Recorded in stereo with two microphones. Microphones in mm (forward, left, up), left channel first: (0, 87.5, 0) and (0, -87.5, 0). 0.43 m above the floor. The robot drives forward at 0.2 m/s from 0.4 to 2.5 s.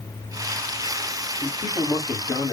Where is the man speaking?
30° left (ahead or behind), 1.8 m.